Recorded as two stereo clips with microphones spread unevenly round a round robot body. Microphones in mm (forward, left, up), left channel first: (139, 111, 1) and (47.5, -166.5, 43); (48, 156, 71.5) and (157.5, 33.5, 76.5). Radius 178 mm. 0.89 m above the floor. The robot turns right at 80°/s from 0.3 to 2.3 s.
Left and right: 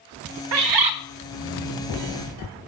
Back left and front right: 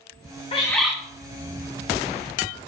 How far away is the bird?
About 0.5 m.